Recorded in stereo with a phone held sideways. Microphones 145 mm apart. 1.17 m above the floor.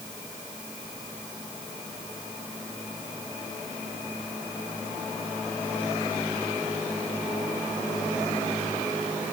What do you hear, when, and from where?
Only background noise.